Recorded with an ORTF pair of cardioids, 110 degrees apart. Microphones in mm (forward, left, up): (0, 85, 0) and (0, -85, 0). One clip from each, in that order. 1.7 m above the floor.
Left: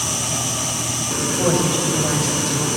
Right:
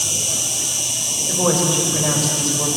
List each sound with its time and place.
0.0 s an insect: 45° right, 4 m
1.3 s a woman speaking: 25° right, 8 m